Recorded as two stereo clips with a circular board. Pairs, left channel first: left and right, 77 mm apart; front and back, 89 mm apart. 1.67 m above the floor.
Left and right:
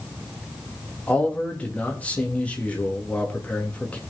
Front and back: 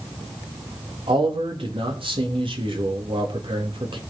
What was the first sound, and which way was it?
A man speaking, 160° left.